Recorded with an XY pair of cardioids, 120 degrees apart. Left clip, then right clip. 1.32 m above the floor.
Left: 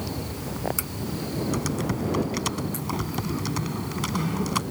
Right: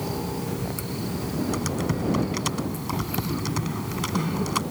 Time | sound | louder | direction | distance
1.5 | typing on a keyboard | right 1 dB | straight ahead | ?